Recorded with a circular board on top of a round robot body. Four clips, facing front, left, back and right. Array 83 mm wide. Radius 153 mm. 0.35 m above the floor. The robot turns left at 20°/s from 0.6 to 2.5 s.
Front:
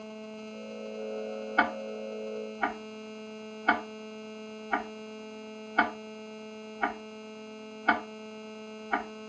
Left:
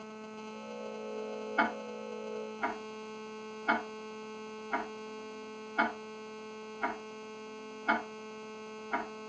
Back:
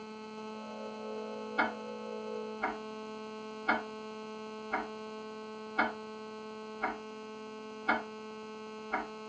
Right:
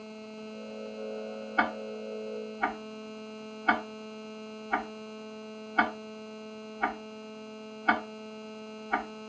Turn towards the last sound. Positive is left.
turn(degrees=-25)